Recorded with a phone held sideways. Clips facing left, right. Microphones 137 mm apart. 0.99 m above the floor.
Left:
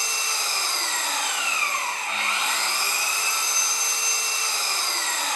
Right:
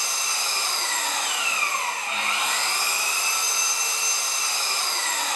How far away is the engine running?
About 1.2 m.